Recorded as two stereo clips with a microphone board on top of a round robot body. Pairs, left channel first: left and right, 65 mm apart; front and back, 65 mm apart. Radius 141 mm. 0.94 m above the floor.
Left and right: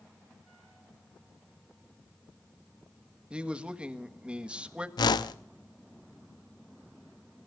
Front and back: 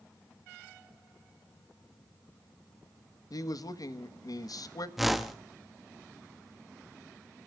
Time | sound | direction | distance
3.3 | a man speaking | 15° right | 1.6 m
5.0 | a whoosh | 95° left | 0.8 m